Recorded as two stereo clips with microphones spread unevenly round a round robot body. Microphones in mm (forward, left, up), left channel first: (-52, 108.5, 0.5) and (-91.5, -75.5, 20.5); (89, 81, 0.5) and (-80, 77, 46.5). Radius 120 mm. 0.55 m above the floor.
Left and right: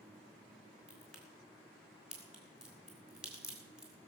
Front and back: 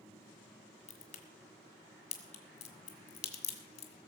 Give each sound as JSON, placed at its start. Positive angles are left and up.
{"t": 0.9, "sound": "a crack", "azimuth_deg": -10, "distance_m": 1.9}